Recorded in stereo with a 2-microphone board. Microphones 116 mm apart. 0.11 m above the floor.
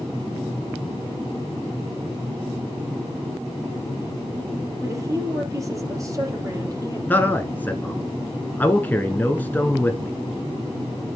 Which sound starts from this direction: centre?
A man speaking, at 7.1 s.